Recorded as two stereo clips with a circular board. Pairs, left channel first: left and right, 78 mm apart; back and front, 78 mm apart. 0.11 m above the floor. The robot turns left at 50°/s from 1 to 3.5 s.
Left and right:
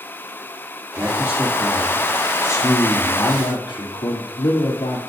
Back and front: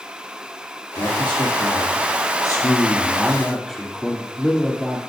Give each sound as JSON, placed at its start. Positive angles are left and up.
{"t": 0.9, "sound": "a man speaking", "azimuth_deg": -140, "distance_m": 2.5}